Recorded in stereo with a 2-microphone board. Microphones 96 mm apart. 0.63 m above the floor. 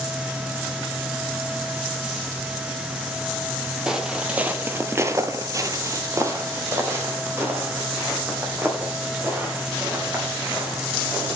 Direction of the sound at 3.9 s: 5° right (ahead or behind).